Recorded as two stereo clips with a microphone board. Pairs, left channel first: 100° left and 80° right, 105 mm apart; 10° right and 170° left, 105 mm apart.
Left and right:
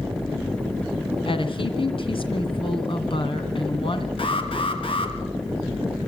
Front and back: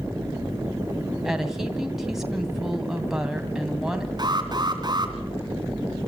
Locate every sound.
1.2 s a woman speaking: 85° left, 2.5 m
4.2 s an alarm: 125° left, 3 m